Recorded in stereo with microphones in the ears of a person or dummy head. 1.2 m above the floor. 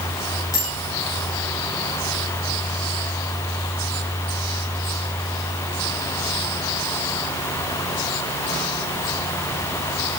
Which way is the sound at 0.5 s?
15° left (ahead or behind).